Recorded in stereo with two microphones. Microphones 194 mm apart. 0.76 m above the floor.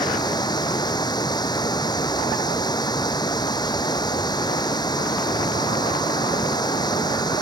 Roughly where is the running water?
Left.